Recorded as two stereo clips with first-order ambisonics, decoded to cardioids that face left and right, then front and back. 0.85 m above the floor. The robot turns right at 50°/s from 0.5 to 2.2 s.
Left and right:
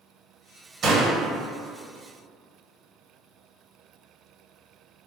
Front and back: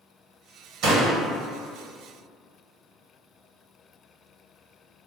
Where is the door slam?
145° right, 1.1 m; by 1.2 s 130° right, 1.1 m.